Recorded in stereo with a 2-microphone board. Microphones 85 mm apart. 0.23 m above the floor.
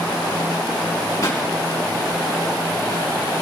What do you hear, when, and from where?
1.2 s a pop: 45° left (ahead or behind), 2.5 m